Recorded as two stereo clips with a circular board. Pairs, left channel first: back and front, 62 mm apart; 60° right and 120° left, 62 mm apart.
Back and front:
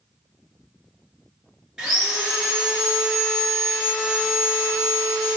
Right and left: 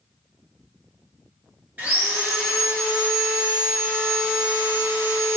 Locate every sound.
1.8 s sawing: 75° left, 1.7 m